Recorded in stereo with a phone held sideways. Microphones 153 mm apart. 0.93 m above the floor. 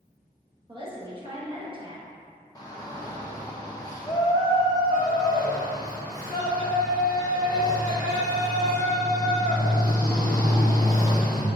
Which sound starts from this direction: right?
A woman speaking, at 0.7 s.